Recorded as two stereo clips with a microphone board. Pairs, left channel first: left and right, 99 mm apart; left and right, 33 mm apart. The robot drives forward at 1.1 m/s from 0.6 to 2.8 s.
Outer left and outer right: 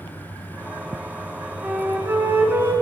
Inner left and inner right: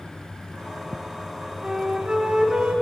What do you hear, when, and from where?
1.6 s a flute: 20° right (ahead or behind), 1.0 m